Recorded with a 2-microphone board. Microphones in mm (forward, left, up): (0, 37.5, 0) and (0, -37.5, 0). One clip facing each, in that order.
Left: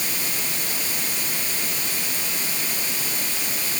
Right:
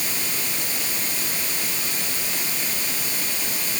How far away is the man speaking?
I don't hear a man speaking.